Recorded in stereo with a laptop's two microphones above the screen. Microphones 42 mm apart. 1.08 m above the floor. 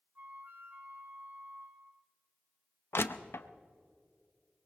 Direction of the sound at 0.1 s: 45° right (ahead or behind).